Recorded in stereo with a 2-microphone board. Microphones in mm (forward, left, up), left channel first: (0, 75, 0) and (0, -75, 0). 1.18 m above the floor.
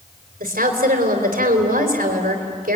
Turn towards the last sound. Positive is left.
turn(degrees=-80)